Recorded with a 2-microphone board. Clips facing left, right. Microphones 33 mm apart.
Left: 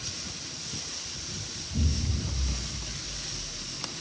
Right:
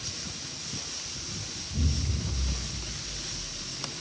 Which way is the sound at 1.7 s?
30° left (ahead or behind).